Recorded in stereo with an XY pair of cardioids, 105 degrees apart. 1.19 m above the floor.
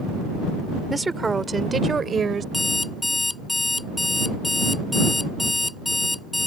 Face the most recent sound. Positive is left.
turn(degrees=10)